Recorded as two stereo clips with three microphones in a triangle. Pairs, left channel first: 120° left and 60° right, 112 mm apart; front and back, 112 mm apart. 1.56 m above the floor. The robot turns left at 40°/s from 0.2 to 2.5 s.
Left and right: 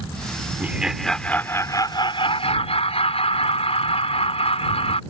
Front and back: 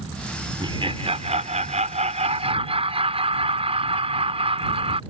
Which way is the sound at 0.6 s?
135° right.